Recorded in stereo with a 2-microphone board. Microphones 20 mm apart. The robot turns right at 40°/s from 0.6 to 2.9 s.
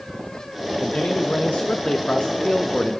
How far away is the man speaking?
About 0.7 m.